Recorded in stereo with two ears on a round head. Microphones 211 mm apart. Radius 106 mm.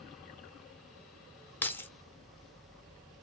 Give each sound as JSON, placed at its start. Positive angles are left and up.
{"t": 1.6, "sound": "keys jangling", "side_deg": 10, "distance_m": 0.6}